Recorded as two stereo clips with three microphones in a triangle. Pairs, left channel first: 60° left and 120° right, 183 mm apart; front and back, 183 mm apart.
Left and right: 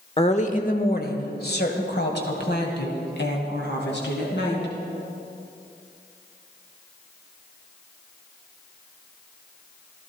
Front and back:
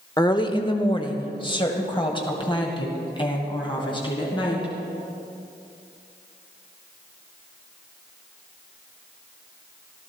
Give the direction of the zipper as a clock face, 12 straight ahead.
I don't hear a zipper.